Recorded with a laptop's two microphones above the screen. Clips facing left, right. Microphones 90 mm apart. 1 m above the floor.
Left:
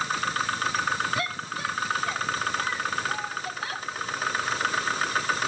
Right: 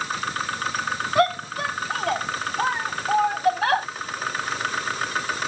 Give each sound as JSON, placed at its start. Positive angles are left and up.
{"t": 1.1, "sound": "a shout", "side_deg": -55}